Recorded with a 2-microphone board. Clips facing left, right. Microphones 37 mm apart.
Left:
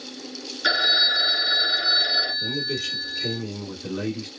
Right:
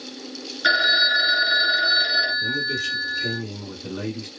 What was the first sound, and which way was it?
A phone ringing, 10° right (ahead or behind).